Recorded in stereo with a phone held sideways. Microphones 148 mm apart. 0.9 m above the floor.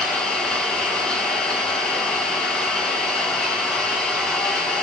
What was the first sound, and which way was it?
An engine running, 5° left (ahead or behind).